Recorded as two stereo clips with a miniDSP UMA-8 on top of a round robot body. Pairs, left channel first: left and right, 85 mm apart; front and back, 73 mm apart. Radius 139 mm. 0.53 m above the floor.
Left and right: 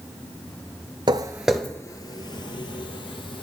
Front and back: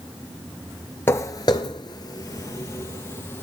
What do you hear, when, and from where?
1.1 s footsteps: 55° right, 0.6 m; by 3.4 s 65° left, 1.4 m